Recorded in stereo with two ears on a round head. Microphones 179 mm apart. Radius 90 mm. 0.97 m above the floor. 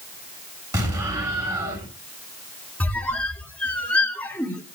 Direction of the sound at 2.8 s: 5° left (ahead or behind).